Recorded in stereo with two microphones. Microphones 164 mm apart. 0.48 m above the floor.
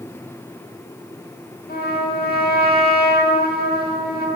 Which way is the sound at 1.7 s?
65° left (ahead or behind).